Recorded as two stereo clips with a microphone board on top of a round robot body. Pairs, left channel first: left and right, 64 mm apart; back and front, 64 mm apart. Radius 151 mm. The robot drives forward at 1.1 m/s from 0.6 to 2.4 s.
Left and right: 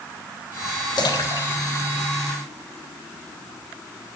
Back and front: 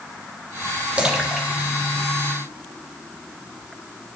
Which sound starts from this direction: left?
A splash, at 1.0 s.